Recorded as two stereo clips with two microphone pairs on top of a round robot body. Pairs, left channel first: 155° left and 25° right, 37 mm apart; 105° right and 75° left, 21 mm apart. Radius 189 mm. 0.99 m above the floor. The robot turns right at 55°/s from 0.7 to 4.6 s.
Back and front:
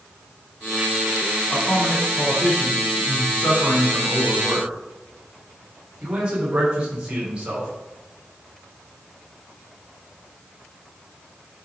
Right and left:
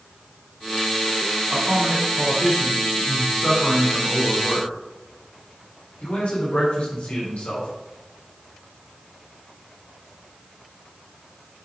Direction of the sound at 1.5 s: 100° left.